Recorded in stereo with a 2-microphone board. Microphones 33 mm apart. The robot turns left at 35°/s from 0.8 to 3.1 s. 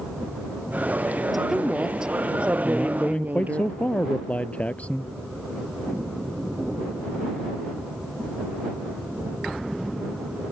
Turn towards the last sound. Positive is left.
turn(degrees=45)  # may be behind; listen again after turning